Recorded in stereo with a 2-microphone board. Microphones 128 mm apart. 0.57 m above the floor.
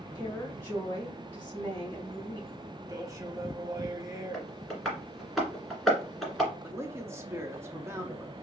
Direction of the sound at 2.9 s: 25° right (ahead or behind).